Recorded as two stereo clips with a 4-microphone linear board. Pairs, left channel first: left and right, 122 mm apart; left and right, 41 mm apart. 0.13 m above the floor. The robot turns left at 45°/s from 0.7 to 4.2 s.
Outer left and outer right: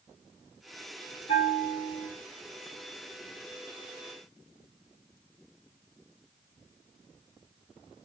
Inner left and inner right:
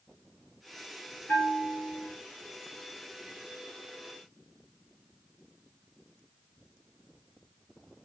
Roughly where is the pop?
I don't hear a pop.